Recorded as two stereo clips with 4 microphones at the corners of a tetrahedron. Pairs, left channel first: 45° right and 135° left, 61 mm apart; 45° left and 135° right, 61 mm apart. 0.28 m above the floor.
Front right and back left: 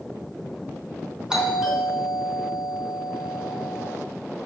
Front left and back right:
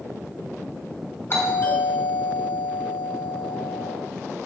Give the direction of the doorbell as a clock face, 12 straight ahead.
10 o'clock.